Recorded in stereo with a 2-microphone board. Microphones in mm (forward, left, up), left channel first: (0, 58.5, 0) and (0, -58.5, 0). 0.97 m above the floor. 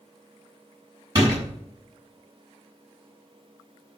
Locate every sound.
1.1 s a door slam: 35° right (ahead or behind), 5 m